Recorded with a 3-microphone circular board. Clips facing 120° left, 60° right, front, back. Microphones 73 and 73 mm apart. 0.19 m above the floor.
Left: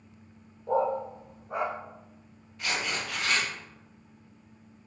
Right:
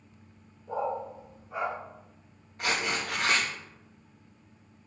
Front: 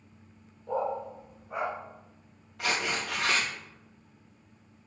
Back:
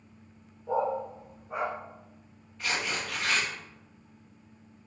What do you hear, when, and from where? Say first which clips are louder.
0.7 s a dog barking: left 5 dB, back 2 dB; 100° left, 2.5 m; by 1.7 s 90° left, 4 m
2.6 s tearing paper: right 2 dB, front 2 dB; 5° right, 4.5 m